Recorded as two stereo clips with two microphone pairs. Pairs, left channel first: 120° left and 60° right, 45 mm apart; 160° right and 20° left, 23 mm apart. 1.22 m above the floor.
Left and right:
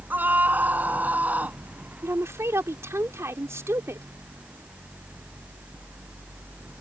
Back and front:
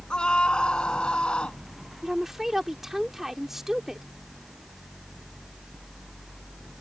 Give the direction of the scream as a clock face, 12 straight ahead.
4 o'clock.